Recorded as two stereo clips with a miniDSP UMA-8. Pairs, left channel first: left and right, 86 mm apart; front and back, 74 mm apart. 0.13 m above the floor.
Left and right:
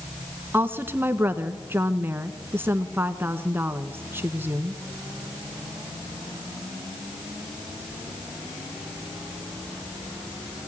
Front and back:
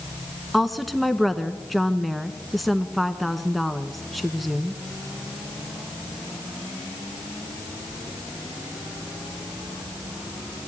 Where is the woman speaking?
90° right, 1.3 m.